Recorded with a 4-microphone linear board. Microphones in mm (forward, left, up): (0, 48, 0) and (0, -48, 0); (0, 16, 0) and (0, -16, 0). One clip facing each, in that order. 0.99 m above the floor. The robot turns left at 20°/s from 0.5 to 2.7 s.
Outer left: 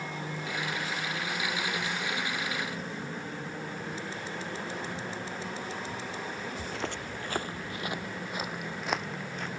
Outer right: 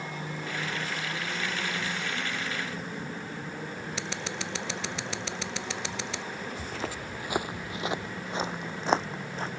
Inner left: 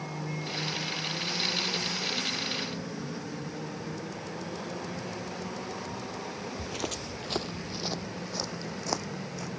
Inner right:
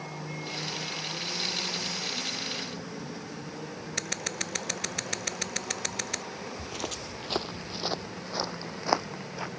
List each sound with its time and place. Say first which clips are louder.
4.0 s scissors: outer right 1 dB, inner right 4 dB; 85° right
6.6 s footsteps: even, inner left 1 dB; 5° left (ahead or behind); by 9.5 s 30° right (ahead or behind)